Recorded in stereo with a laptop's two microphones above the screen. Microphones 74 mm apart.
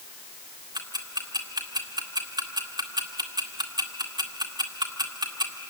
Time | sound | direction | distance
0.8 | ticking | 75° right (ahead or behind) | 2.0 m